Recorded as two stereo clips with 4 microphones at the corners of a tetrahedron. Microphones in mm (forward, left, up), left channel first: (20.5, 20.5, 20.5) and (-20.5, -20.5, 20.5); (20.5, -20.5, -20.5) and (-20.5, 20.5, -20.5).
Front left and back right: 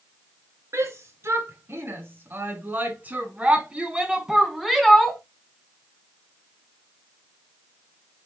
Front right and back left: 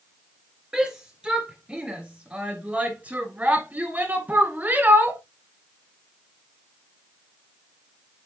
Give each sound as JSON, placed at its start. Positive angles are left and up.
{"t": 0.7, "sound": "a shout", "azimuth_deg": -150, "distance_m": 2.5}